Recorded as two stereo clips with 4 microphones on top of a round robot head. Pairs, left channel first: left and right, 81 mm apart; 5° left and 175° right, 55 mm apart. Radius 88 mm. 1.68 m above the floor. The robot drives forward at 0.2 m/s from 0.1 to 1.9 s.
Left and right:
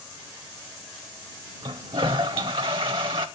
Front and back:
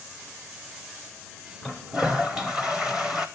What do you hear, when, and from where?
1.6 s a toilet flushing: 80° right, 0.6 m; by 3.3 s 90° right, 0.6 m